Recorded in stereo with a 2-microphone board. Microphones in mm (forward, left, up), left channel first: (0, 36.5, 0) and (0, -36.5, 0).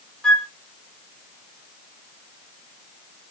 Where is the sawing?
No sawing in this recording.